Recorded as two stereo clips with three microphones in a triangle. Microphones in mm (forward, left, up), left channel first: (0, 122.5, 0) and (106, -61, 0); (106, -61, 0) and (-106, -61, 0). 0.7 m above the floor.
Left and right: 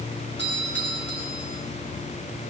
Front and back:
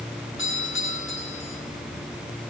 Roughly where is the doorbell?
Ahead right.